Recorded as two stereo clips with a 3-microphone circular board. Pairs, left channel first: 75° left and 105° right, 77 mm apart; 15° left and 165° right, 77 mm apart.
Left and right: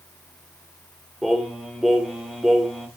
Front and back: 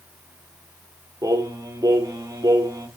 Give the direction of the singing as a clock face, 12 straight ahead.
6 o'clock.